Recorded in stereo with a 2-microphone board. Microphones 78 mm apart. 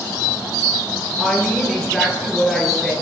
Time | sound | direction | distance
1.2 | a woman speaking | centre (ahead or behind) | 10 m